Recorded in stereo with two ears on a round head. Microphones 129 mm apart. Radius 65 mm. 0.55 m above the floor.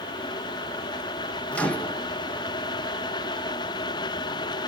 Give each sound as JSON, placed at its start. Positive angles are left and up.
{"t": 1.5, "sound": "a microwave", "side_deg": 10, "distance_m": 1.2}